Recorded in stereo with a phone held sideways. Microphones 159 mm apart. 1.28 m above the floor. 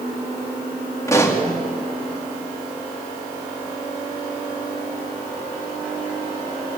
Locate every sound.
1.1 s a pop: 20° left (ahead or behind), 2.5 m